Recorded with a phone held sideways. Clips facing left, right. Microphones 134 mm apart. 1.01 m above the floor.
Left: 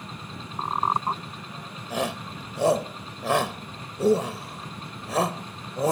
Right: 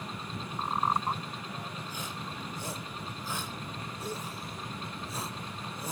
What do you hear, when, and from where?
0.6 s a squeak: 35° left (ahead or behind)
1.9 s a shout: 85° left